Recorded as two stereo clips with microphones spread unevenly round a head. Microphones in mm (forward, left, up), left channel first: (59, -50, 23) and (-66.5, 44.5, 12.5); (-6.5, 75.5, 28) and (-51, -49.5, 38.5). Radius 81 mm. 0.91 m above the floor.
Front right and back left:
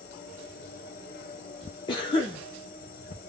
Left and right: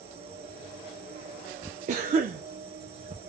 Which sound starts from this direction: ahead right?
An insect, at 0.0 s.